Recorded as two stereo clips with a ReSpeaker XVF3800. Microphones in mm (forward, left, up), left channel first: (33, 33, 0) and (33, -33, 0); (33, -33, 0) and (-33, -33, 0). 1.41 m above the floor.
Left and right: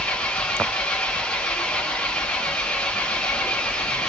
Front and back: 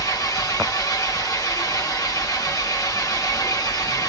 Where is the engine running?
15° left, 0.8 m.